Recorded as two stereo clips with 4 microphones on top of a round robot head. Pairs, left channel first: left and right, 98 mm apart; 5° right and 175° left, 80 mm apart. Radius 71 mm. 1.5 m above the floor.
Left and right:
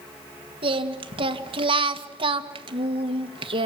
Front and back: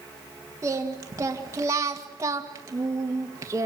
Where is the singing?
125° right, 1.8 m.